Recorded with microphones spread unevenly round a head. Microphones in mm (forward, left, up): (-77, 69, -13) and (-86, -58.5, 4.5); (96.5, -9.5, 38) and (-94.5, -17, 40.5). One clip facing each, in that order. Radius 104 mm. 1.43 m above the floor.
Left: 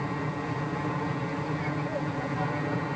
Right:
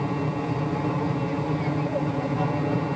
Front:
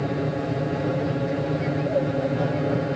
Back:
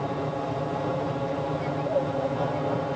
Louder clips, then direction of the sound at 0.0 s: Right 5 dB, front 4 dB; 45° right.